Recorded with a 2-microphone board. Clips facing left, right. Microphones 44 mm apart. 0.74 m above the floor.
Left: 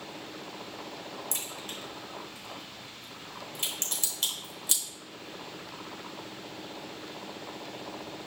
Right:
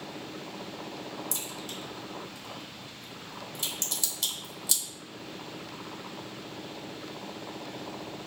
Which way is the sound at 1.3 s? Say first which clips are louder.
Right 1 dB; 40° left (ahead or behind).